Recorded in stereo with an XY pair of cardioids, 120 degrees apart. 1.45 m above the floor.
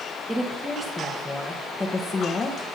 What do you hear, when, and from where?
0.3 s a woman speaking: 10° right, 2.5 m; by 2.6 s 35° left, 1.9 m